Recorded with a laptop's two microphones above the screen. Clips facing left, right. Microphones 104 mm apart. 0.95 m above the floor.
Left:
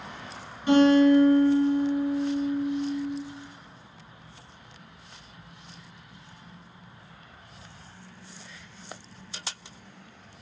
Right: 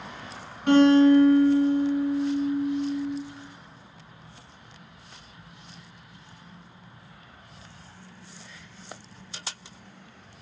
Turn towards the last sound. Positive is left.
turn(degrees=-70)  # may be behind; listen again after turning